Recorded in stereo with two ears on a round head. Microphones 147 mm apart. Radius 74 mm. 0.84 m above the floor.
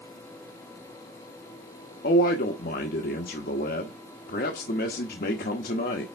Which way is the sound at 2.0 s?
60° left (ahead or behind).